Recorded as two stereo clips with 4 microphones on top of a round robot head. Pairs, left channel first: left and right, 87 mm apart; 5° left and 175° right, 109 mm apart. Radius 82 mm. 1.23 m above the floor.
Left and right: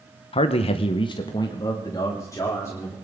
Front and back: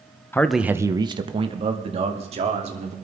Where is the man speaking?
75° left, 0.8 m; by 2.9 s 160° left, 3.5 m.